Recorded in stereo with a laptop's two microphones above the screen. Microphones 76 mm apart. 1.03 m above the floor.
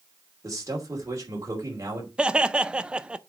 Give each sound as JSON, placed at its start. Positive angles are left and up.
{"t": 0.4, "sound": "a man speaking", "side_deg": -45, "distance_m": 2.5}
{"t": 2.2, "sound": "laughter", "side_deg": -10, "distance_m": 0.6}